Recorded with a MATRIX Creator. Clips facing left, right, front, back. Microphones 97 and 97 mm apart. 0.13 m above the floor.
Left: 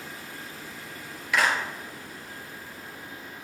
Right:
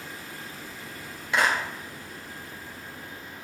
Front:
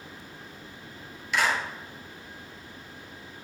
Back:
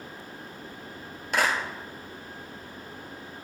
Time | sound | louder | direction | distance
1.3 | a clap | even, even | 150° right | 1.6 m